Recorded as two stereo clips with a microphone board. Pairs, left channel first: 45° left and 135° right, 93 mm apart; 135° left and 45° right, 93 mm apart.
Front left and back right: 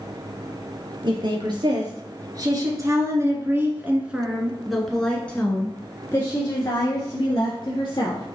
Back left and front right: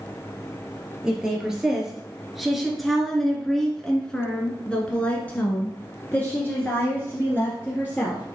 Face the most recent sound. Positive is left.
turn(degrees=70)